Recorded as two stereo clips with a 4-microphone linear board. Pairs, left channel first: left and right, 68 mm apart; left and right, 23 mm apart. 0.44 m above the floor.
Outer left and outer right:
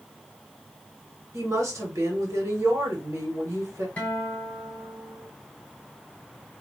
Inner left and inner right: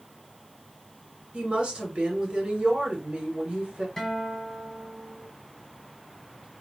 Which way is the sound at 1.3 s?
50° right (ahead or behind).